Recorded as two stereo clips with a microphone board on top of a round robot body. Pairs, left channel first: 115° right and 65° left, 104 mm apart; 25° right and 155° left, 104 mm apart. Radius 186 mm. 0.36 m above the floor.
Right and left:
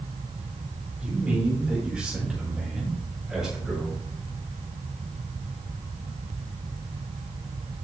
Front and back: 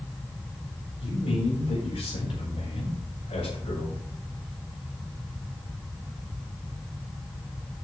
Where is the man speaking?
10° right, 5 m; by 4.0 s 20° right, 6.5 m.